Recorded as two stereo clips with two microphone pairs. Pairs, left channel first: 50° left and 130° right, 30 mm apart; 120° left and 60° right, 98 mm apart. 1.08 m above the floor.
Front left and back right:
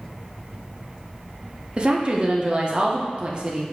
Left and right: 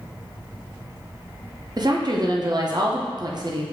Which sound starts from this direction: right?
A woman speaking, at 1.8 s.